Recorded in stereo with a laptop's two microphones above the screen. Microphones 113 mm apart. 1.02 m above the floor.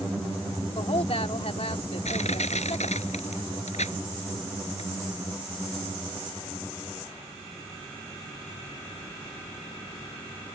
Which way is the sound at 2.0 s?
85° left.